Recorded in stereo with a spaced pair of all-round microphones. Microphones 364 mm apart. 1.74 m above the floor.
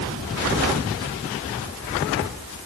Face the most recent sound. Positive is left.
No sound to turn to.